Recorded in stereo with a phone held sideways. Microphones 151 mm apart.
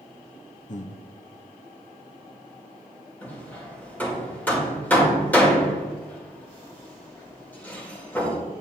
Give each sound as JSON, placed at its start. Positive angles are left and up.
{"t": 0.7, "sound": "breathing", "side_deg": 55, "distance_m": 0.5}
{"t": 3.2, "sound": "hammering", "side_deg": 10, "distance_m": 1.7}